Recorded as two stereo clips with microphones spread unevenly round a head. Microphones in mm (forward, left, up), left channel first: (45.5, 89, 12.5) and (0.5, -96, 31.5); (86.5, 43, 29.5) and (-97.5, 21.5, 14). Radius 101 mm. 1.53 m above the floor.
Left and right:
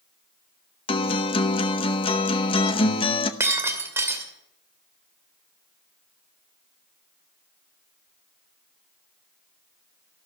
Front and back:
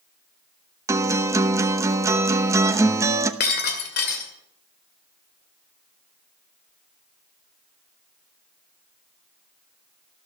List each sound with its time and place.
0.9 s a guitar: 120° left, 0.8 m
3.4 s breaking glass: 30° right, 2.5 m